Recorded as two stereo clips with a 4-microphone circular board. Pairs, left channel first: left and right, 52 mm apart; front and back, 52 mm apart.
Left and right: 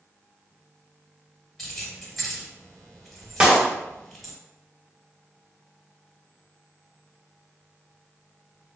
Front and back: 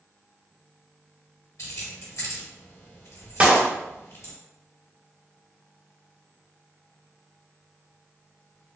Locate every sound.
1.6 s keys jangling: 5° left, 1.4 m
3.4 s a clap: 145° right, 0.8 m